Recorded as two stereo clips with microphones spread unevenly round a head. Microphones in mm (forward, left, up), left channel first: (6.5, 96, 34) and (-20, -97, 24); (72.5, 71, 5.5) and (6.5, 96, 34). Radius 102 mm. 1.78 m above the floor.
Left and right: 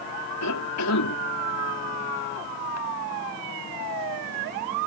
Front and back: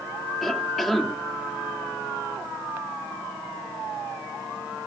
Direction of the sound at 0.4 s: 75° left.